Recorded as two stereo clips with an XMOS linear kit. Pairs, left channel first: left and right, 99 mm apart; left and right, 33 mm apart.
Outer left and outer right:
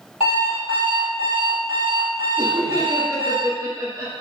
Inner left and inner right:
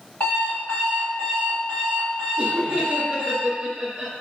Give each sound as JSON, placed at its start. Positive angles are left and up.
{"t": 0.2, "sound": "an alarm clock", "side_deg": 70, "distance_m": 1.5}
{"t": 2.4, "sound": "laughter", "side_deg": -30, "distance_m": 0.7}